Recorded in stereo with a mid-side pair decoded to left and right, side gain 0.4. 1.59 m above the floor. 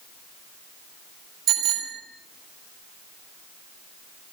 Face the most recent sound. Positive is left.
turn(degrees=-70)